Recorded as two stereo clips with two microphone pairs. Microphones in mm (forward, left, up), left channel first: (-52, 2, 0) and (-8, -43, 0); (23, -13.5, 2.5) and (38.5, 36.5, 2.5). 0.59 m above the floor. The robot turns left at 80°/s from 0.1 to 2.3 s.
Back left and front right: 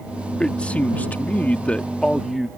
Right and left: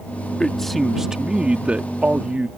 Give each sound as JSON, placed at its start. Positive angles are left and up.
{"t": 0.4, "sound": "a man speaking", "azimuth_deg": -165}